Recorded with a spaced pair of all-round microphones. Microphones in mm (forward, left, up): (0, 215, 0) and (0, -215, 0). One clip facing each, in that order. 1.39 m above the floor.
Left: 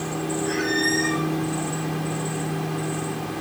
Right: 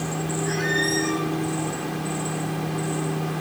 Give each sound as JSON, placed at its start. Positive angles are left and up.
{"t": 0.5, "sound": "a squeak", "side_deg": -10, "distance_m": 8.5}